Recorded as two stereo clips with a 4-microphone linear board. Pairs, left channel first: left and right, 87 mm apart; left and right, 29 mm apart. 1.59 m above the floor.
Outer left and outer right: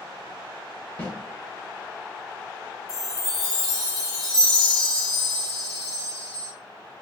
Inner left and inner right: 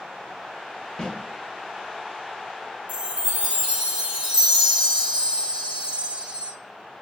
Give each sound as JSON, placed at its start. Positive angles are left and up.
{"t": 1.0, "sound": "a snare drum", "side_deg": 25, "distance_m": 1.5}
{"t": 2.9, "sound": "a chime", "side_deg": -45, "distance_m": 2.0}